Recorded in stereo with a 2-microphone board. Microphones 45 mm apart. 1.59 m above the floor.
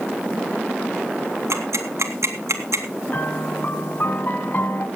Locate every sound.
1.5 s ticking: 90° right, 2.5 m
3.1 s a piano: 40° left (ahead or behind), 2.5 m